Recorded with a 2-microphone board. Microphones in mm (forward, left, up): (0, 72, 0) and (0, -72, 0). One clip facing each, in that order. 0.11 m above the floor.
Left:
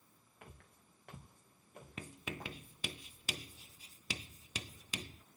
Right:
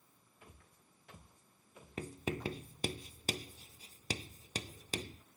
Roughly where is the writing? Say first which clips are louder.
Right 7 dB; right.